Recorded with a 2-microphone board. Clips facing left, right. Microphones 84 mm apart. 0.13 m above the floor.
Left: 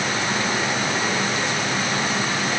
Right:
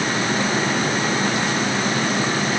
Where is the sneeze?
No sneeze in this recording.